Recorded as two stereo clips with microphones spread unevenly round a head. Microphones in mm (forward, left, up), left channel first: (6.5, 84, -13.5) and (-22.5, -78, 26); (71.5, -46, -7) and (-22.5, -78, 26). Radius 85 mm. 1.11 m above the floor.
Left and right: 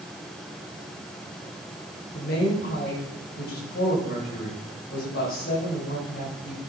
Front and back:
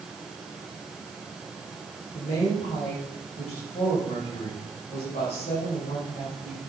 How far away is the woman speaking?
About 5.5 m.